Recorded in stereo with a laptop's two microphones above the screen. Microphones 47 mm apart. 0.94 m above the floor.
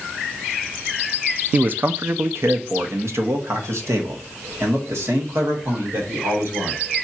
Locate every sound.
1.5 s a man speaking: 35° right (ahead or behind), 0.6 m; by 6.8 s 70° right (ahead or behind), 3 m